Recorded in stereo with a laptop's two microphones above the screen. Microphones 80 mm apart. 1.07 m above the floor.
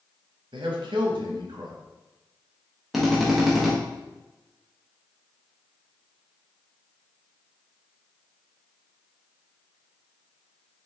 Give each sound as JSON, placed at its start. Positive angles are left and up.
{"t": 0.5, "sound": "a man speaking", "side_deg": -75, "distance_m": 1.0}
{"t": 2.9, "sound": "a drill", "side_deg": 0, "distance_m": 0.7}